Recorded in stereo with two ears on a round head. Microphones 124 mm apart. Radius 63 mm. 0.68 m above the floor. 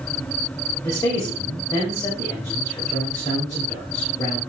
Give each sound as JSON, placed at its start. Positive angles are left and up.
{"t": 0.8, "sound": "a man speaking", "side_deg": 25, "distance_m": 3.0}